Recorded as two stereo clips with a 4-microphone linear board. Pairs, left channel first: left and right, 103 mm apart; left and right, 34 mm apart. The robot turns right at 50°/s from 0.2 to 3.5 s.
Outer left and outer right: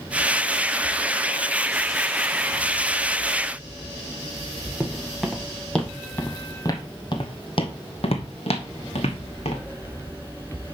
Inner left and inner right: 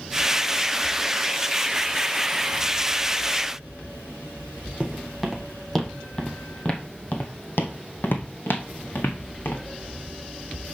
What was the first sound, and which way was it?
Footsteps, 5° right (ahead or behind).